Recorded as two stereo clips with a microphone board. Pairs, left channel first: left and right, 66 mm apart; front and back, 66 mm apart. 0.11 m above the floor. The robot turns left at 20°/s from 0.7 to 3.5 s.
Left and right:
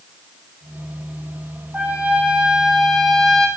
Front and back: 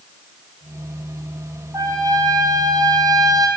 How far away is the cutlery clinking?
I don't hear cutlery clinking.